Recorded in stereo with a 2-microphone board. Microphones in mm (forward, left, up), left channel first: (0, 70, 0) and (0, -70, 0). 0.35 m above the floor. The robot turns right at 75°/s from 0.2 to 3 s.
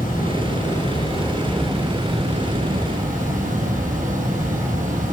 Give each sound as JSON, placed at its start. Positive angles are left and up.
{"t": 0.0, "sound": "running water", "azimuth_deg": 70, "distance_m": 6.5}